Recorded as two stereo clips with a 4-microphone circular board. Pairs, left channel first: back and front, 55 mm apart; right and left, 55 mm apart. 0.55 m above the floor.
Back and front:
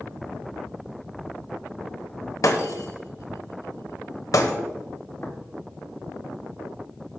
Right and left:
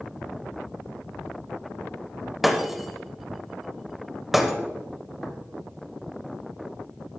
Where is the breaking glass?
175° left, 1.1 m.